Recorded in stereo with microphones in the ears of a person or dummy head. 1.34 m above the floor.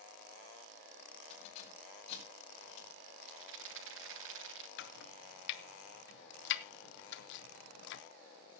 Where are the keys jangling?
45° left (ahead or behind), 5.5 m.